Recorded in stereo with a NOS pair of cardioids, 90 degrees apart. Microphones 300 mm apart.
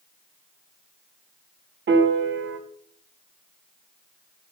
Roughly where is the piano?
Ahead right.